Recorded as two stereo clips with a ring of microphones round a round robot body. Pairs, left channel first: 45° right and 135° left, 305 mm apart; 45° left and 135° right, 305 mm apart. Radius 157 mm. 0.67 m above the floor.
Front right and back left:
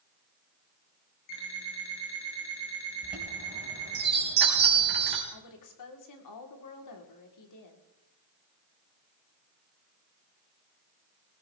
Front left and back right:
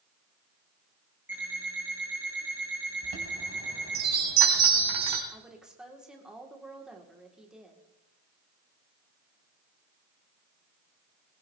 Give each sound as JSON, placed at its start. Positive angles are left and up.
{"t": 1.3, "sound": "an alarm clock", "azimuth_deg": -50, "distance_m": 6.0}
{"t": 3.0, "sound": "a chime", "azimuth_deg": -165, "distance_m": 3.5}
{"t": 5.3, "sound": "a woman speaking", "azimuth_deg": -50, "distance_m": 2.5}